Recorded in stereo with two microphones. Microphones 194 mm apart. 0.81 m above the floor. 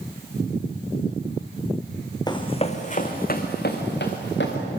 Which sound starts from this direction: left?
Running footsteps, at 2.3 s.